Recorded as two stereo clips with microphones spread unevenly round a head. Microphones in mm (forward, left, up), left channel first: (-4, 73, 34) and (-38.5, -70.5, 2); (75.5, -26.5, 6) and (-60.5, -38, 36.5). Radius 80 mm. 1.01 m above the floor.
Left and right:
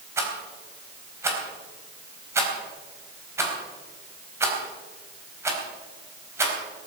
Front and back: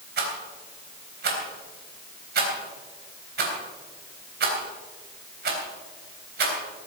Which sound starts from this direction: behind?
A rattle, at 0.2 s.